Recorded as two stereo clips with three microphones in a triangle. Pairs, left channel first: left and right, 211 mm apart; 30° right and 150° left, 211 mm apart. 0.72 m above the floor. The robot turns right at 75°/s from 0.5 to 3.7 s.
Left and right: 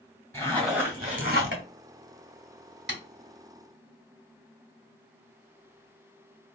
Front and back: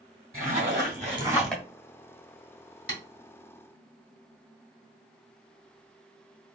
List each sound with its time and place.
0.3 s a zipper: 170° left, 1.5 m; by 1.6 s 105° right, 1.5 m
2.9 s tapping: 55° right, 1.5 m; by 3.0 s 45° right, 1.5 m